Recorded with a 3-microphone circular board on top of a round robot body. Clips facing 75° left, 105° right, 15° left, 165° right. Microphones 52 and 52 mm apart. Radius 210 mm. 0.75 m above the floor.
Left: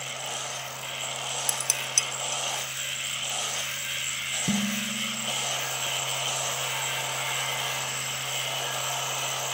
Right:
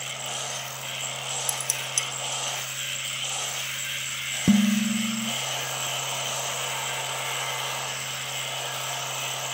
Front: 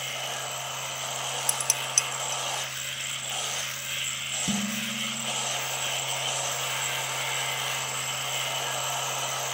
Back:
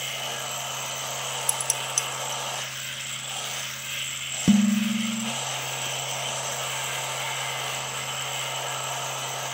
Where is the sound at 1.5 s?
35° left, 2.5 m.